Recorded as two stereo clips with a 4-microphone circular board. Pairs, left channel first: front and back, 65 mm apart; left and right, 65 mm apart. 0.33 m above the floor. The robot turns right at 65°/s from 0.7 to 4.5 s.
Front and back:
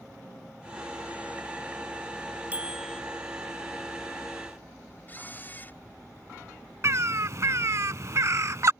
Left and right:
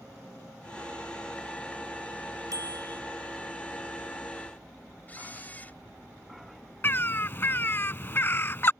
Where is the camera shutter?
40° left.